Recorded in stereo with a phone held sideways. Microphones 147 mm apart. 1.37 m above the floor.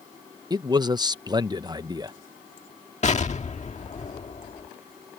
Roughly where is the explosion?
Left.